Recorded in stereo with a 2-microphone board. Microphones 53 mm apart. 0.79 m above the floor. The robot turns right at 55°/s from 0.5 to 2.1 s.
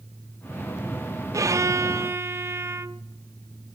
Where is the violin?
95° right, 0.5 m; by 3.0 s 55° right, 0.5 m.